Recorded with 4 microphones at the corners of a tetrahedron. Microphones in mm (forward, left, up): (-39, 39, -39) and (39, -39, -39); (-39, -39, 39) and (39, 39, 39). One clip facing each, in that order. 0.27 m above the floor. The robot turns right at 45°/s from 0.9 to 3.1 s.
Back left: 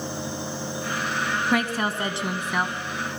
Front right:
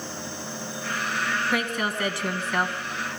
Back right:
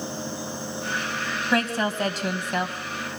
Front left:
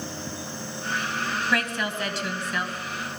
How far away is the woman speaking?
About 2.5 m.